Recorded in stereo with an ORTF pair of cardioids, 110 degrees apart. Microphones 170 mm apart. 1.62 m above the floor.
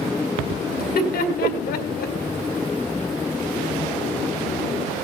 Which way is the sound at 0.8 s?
70° left.